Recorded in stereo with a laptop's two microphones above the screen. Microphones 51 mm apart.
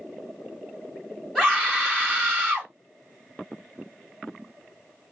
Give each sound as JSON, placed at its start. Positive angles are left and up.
{"t": 1.4, "sound": "a scream", "side_deg": 10, "distance_m": 2.0}